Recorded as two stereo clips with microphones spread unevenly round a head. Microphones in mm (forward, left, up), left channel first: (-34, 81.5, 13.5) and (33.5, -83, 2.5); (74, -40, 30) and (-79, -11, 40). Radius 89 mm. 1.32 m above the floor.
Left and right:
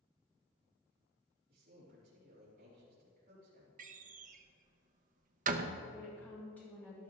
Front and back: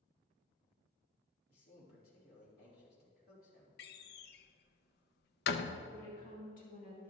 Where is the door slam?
25° right, 0.7 m.